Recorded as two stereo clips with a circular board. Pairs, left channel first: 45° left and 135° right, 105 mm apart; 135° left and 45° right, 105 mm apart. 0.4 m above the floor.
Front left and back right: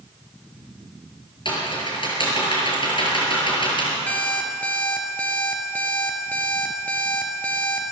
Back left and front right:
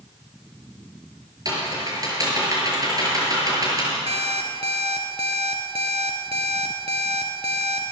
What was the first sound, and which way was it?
Typing on a keyboard, 5° left.